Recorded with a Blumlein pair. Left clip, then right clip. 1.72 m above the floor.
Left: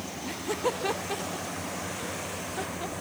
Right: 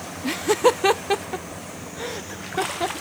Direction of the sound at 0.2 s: 30° right.